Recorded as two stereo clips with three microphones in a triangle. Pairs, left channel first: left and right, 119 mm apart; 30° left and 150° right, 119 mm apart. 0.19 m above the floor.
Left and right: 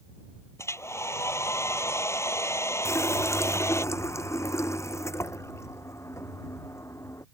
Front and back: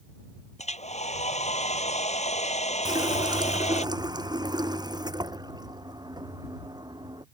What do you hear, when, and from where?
0.6 s a hair dryer: 25° left
2.9 s a running tap: 155° left